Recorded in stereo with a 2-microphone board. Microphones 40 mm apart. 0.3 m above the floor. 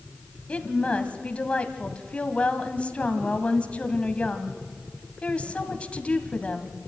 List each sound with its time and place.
0.5 s a woman speaking: 30° left (ahead or behind), 1.8 m